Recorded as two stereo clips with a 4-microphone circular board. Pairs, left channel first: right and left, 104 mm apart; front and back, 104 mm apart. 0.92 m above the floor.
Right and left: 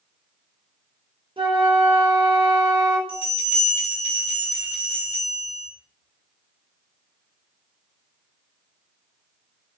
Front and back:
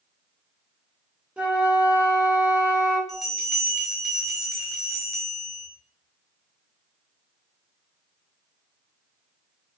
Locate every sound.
1.4 s a flute: 105° left, 0.8 m
3.1 s a bell: 90° right, 1.5 m